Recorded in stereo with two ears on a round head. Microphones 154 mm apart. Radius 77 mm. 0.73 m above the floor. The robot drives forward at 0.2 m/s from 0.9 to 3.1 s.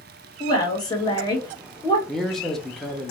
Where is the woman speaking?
25° left (ahead or behind), 1.0 m.